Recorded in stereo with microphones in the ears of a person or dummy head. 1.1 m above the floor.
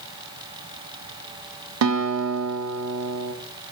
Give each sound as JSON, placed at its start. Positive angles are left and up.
{"t": 1.8, "sound": "a guitar", "side_deg": -85, "distance_m": 0.6}